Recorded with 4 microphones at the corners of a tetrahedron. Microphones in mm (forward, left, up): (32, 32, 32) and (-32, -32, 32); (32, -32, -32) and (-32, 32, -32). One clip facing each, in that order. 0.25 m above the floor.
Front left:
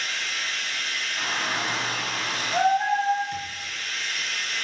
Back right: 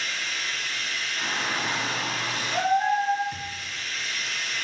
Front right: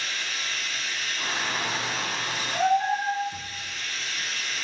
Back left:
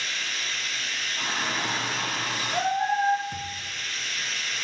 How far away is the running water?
About 1.3 m.